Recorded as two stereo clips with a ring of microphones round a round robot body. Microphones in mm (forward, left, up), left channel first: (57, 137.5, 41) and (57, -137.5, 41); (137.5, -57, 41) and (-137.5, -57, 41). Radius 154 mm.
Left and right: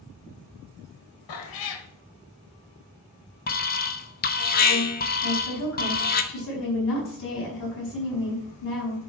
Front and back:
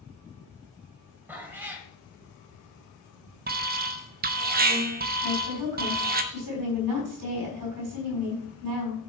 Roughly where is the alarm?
Behind left.